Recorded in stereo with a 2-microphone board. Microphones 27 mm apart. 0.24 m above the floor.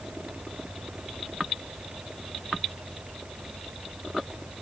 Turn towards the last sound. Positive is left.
No sound to turn to.